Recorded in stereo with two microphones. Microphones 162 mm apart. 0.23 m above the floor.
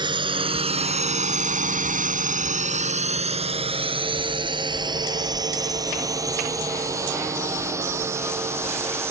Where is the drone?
30° right (ahead or behind); by 9.1 s 15° right (ahead or behind).